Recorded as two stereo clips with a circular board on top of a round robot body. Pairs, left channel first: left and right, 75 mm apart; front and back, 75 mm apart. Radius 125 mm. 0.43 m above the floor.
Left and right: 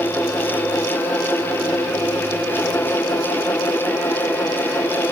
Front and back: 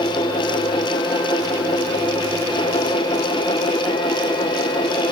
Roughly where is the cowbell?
No cowbell in this recording.